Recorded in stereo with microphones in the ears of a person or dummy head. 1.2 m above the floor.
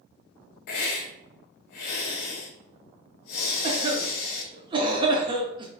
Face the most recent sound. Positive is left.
turn(degrees=-25)  # may be behind; listen again after turning